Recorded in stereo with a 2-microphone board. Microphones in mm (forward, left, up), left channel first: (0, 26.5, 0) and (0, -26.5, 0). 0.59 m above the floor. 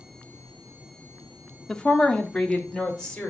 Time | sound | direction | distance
1.7 | a woman speaking | 10° left (ahead or behind) | 0.7 m